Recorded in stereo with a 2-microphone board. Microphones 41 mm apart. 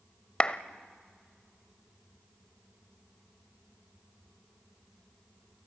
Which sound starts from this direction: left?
A clap, at 0.4 s.